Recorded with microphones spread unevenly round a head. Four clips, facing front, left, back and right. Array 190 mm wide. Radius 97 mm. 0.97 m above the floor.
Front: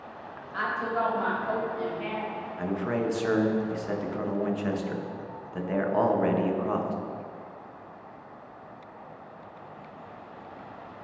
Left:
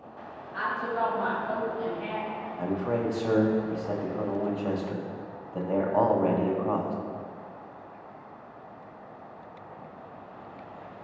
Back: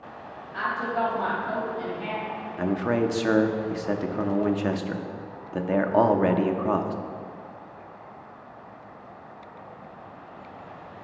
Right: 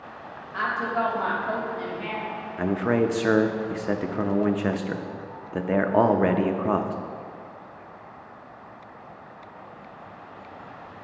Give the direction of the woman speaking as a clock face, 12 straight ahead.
1 o'clock.